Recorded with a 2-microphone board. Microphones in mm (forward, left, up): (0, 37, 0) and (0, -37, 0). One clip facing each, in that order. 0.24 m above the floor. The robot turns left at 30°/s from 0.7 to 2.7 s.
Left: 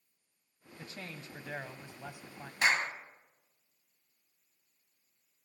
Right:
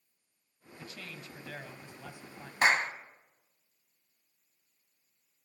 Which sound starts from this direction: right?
A clap, at 2.6 s.